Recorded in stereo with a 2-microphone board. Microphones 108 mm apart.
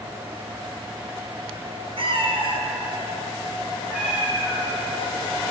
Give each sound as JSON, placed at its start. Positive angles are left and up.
{"t": 2.0, "sound": "a cat meowing", "side_deg": -60, "distance_m": 1.0}